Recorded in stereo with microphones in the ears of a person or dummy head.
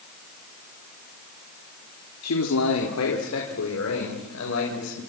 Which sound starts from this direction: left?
A man speaking, at 2.2 s.